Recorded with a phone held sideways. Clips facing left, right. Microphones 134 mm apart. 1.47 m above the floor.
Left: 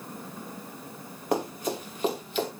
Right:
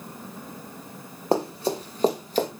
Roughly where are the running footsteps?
Right.